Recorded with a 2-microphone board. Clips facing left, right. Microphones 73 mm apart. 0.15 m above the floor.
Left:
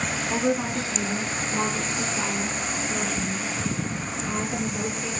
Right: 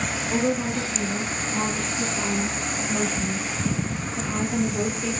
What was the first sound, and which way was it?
A woman speaking, 30° left (ahead or behind).